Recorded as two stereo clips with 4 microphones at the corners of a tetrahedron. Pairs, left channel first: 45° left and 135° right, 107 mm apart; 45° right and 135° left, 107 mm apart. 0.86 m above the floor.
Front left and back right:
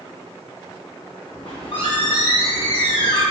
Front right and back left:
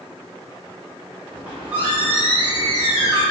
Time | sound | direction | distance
1.3 | a squeak | 65° left | 1.8 m